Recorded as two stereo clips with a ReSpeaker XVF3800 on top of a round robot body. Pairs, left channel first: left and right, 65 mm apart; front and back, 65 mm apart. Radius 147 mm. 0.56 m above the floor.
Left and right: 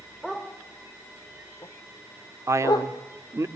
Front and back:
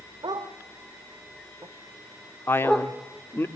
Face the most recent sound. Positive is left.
turn(degrees=-55)